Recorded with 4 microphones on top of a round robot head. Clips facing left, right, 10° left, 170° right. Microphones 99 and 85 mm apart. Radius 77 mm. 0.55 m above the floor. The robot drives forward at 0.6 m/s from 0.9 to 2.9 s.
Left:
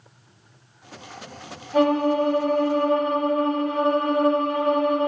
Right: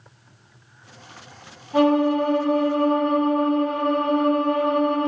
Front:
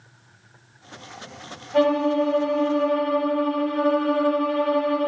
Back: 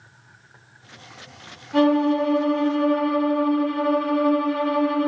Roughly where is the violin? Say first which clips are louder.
Right 1 dB, back 1 dB; behind right.